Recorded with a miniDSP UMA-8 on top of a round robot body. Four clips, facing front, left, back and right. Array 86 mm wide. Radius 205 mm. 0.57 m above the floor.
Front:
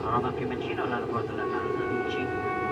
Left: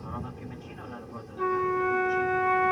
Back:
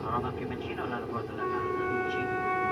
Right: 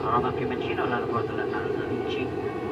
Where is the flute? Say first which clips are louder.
Left 1 dB, back 2 dB; 95° left.